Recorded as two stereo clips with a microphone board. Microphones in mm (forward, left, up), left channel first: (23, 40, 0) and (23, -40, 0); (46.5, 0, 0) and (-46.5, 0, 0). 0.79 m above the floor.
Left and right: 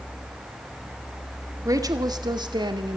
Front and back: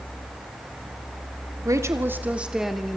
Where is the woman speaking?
130° right, 2 m; by 3.0 s 85° right, 2.5 m.